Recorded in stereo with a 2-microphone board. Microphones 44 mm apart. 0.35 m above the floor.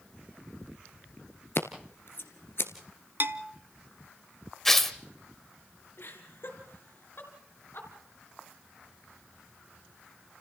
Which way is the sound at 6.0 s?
55° left (ahead or behind).